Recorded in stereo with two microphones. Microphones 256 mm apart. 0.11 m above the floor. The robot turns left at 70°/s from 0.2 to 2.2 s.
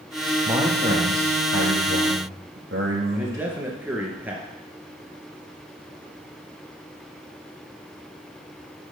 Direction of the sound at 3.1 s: 5° right (ahead or behind).